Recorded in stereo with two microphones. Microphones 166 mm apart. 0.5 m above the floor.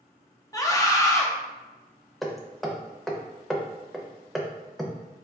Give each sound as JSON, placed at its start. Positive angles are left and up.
{"t": 0.5, "sound": "a scream", "side_deg": 20, "distance_m": 0.7}
{"t": 2.2, "sound": "hammering", "side_deg": 0, "distance_m": 0.5}